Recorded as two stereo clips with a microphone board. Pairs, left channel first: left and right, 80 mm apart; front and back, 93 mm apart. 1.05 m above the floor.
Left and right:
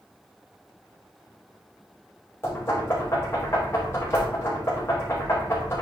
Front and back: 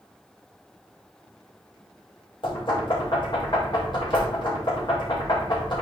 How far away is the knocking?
About 3 m.